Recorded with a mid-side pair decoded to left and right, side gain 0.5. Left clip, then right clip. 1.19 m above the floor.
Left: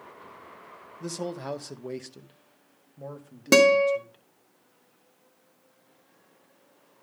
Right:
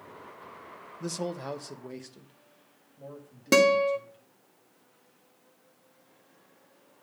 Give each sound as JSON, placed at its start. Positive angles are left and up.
{"t": 1.0, "sound": "a man speaking", "azimuth_deg": -10, "distance_m": 0.7}
{"t": 3.5, "sound": "a guitar", "azimuth_deg": 25, "distance_m": 1.4}